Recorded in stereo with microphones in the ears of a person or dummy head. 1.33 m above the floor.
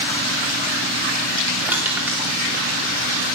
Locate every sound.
1.7 s crushing: 5° right (ahead or behind), 2.5 m